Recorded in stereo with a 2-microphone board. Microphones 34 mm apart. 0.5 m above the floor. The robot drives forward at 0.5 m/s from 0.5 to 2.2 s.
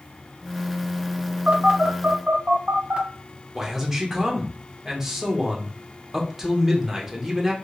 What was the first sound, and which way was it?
A phone buzzing, 40° right (ahead or behind).